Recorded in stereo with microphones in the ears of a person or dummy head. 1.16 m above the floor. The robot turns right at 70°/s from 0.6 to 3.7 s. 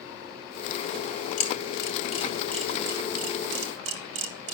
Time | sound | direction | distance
1.4 | a camera shutter | 80° left | 2.5 m